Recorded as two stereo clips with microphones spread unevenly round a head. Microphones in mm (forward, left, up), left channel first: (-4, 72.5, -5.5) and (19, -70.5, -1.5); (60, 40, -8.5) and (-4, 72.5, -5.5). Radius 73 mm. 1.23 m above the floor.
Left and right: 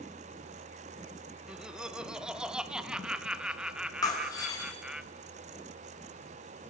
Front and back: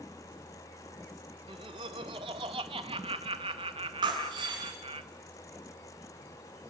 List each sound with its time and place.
1.5 s laughter: 165° right, 1.0 m
4.0 s breaking glass: 165° left, 4 m